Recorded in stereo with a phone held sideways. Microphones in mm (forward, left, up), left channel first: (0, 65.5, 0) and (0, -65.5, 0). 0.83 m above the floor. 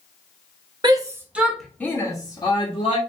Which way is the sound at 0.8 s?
35° right (ahead or behind).